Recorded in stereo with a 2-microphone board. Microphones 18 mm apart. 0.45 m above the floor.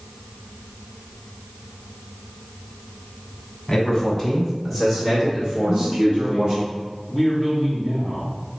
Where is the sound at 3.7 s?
30° left (ahead or behind), 1.5 m; by 6.6 s 45° right (ahead or behind), 1.7 m.